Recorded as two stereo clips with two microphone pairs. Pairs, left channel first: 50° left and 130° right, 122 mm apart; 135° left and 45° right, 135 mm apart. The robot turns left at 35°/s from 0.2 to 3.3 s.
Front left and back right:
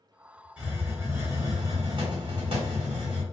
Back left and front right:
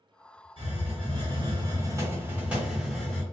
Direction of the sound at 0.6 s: 50° right.